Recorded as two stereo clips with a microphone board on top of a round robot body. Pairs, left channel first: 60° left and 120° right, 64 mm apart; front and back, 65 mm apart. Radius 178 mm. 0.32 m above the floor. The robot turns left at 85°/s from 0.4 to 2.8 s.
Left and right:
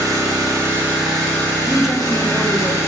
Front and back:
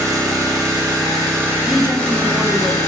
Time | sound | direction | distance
0.0 | an engine running | 145° right | 1.9 m
1.6 | a woman speaking | 170° left | 1.0 m